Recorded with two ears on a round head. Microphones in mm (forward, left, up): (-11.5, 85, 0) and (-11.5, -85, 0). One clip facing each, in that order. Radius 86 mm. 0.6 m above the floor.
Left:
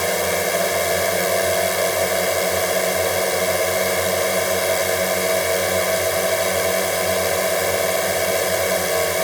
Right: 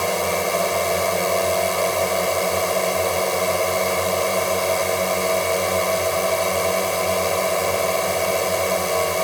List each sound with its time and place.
0.0 s a drone: 10° left (ahead or behind)